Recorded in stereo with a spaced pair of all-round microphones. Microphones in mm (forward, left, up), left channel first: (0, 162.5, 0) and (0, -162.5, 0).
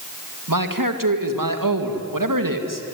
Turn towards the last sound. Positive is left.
turn(degrees=-75)  # may be behind; listen again after turning